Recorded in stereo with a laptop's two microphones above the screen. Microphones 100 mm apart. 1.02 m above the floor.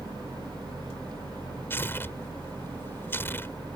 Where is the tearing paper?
20° left (ahead or behind).